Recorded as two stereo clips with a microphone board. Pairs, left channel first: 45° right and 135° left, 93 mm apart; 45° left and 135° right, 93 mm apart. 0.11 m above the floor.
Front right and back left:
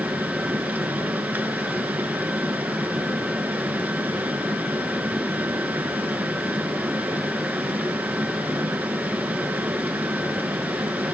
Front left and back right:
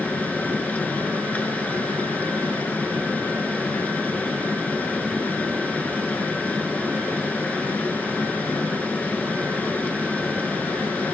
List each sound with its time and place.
0.0 s running water: 95° left, 1.5 m